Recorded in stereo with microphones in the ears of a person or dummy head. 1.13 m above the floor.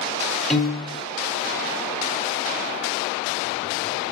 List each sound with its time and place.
0.5 s a piano: centre (ahead or behind), 0.8 m